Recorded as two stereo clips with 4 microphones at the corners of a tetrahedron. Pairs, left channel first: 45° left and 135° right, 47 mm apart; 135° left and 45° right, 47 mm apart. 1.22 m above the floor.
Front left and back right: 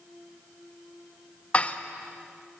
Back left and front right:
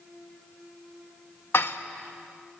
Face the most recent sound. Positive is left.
turn(degrees=105)